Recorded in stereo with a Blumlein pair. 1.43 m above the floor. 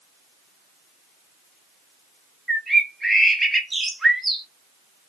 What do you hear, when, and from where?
2.5 s a bird: 5° right, 0.5 m